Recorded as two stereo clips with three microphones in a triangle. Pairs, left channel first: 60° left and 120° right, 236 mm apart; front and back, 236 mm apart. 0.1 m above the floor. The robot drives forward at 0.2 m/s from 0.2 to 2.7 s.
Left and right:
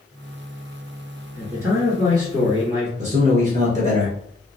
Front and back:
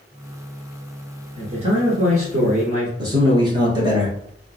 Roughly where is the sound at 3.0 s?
Behind right.